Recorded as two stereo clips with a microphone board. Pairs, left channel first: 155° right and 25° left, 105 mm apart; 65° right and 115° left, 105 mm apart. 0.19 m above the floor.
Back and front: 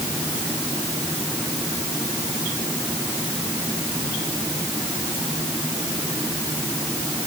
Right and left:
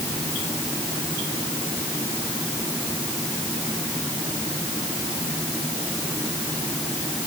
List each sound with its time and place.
Only background noise.